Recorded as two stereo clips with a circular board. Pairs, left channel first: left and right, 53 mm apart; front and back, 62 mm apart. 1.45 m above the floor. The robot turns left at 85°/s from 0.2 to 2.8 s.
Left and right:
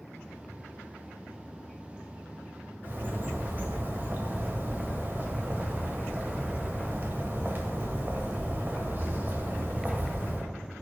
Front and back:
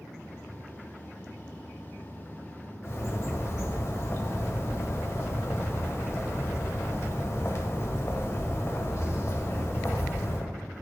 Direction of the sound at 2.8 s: 40° right.